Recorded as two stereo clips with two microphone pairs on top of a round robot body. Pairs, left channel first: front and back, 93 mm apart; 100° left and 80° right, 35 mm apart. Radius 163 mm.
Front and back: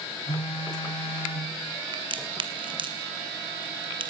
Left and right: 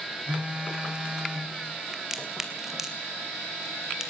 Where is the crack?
155° right, 2.5 m.